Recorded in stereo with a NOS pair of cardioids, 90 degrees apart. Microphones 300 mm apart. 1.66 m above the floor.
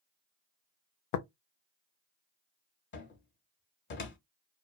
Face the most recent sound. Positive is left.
turn(degrees=35)